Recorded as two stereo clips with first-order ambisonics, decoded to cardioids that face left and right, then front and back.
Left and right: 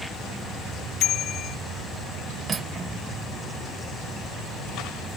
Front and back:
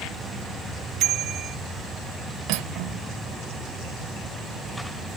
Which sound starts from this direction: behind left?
A bicycle bell, at 1.0 s.